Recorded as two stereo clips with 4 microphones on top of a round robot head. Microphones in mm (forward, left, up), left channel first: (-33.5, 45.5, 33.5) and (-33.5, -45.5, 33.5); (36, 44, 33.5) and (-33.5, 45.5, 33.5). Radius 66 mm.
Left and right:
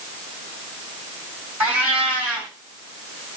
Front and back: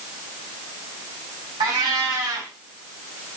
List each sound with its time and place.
1.6 s a cat meowing: 160° right, 3 m